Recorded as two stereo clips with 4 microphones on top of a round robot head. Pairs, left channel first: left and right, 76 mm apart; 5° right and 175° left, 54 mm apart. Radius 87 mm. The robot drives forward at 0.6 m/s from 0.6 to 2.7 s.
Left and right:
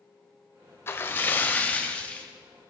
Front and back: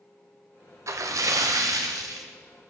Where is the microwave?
No microwave in this recording.